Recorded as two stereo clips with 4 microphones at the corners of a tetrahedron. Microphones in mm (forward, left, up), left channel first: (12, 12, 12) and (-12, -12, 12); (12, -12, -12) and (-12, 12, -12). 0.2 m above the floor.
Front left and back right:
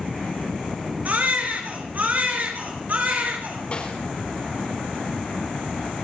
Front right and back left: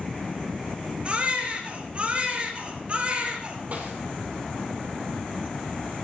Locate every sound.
1.1 s a baby crying: 170° right, 3 m
3.7 s a snare drum: 95° left, 5.5 m